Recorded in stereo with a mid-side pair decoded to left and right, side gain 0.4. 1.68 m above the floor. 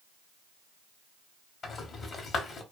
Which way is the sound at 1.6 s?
55° left.